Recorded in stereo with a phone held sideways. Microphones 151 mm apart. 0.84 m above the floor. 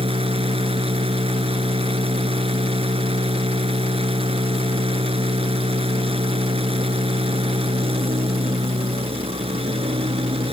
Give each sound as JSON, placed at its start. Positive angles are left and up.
{"t": 0.0, "sound": "a machine running", "side_deg": -40}